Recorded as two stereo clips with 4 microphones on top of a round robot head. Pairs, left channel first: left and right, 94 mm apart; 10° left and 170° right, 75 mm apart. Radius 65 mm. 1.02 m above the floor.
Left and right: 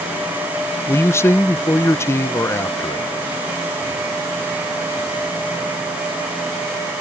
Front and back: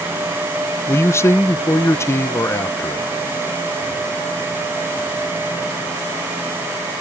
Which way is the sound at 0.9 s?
40° left.